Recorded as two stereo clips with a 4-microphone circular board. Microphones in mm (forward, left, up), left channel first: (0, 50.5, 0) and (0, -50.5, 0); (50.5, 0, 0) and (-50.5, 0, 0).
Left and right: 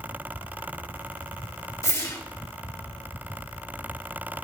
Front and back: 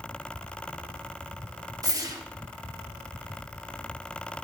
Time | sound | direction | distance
1.8 | a whoosh | 140° left | 1.3 m